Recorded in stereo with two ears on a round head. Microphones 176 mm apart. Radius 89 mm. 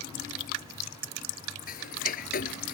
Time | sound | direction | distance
1.7 | ticking | 45° left (ahead or behind) | ?